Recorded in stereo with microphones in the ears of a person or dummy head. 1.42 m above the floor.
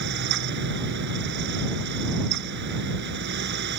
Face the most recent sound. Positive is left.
turn(degrees=-65)  # may be behind; listen again after turning